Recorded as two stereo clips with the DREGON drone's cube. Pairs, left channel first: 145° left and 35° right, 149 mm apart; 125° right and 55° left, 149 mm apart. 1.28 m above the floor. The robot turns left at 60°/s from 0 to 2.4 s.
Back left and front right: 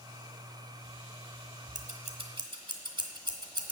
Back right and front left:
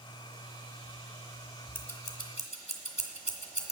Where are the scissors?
45° right, 1.4 m; by 3.7 s 85° right, 1.4 m.